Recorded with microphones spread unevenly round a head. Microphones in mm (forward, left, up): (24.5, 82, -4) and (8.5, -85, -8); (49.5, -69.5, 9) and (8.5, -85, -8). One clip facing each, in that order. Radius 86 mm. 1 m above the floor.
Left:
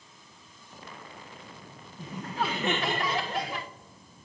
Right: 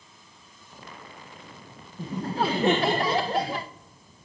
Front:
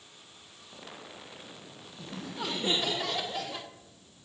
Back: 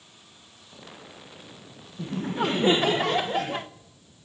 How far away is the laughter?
About 0.6 m.